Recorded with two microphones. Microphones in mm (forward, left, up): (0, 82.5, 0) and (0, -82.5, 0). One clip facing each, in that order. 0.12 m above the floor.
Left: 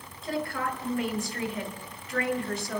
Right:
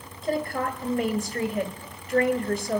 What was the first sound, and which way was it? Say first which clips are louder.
A woman speaking: right 4 dB; 40° right (ahead or behind).